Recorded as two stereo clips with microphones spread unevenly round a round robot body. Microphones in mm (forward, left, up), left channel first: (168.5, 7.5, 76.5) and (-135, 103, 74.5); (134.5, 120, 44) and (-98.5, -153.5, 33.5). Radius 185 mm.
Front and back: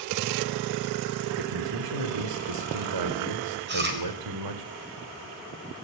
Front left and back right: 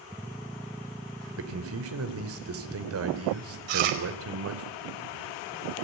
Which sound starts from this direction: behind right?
Chewing, at 3.7 s.